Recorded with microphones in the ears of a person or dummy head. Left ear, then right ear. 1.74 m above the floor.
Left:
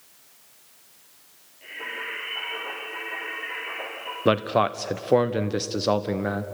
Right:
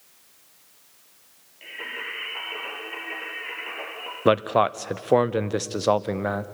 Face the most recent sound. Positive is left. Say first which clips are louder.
# right 2 dB
turn(degrees=-25)  # may be behind; listen again after turning